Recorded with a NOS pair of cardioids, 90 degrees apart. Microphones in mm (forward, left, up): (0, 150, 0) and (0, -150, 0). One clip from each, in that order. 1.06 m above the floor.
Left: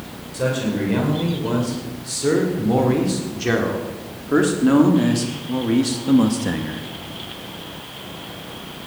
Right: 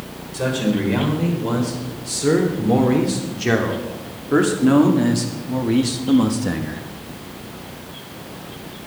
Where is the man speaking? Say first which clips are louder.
Right 1 dB; 5° right, 4.5 m; by 6.8 s 5° left, 1.4 m.